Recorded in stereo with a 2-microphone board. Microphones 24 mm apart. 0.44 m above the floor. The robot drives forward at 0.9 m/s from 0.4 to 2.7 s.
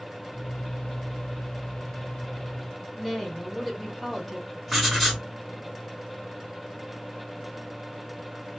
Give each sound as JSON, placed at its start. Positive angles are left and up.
{"t": 3.0, "sound": "a woman speaking", "side_deg": 10, "distance_m": 1.5}
{"t": 4.7, "sound": "writing", "side_deg": 5, "distance_m": 2.5}